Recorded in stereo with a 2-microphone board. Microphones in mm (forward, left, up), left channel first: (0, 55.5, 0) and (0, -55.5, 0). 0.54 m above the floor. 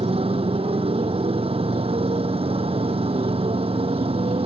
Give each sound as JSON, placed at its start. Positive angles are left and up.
{"t": 0.0, "sound": "a motorcycle", "side_deg": -65}